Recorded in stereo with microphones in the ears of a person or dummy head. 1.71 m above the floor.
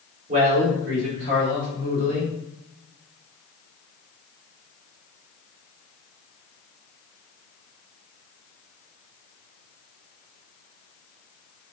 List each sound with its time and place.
0.3 s a man speaking: 40° right (ahead or behind), 0.9 m; by 2.3 s 55° right (ahead or behind), 2.0 m